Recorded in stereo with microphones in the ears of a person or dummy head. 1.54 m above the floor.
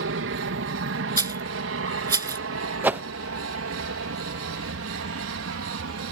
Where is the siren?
I don't hear a siren.